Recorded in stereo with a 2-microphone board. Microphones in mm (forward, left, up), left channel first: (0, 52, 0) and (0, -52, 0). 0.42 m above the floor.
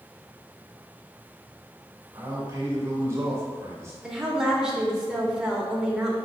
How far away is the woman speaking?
About 1.0 m.